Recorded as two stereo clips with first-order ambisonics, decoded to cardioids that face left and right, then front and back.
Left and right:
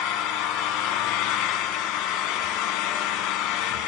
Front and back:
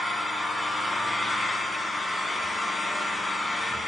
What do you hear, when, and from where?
0.0 s an engine running: 85° left, 1.9 m